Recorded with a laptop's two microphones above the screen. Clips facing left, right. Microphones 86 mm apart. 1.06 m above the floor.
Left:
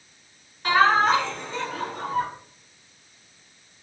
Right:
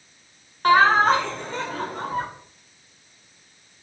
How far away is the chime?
I don't hear a chime.